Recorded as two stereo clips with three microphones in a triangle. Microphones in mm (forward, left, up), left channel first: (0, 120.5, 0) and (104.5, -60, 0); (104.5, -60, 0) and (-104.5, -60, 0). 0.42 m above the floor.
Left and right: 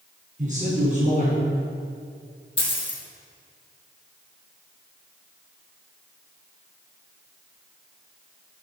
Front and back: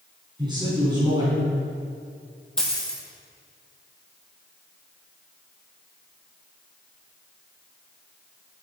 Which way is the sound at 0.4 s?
110° right.